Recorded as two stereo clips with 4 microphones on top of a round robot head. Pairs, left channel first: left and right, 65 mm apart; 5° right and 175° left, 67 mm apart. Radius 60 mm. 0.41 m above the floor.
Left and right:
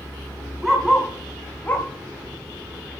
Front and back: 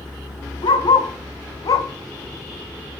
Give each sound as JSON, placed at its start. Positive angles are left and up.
{"t": 0.6, "sound": "a dog barking", "azimuth_deg": -5, "distance_m": 2.0}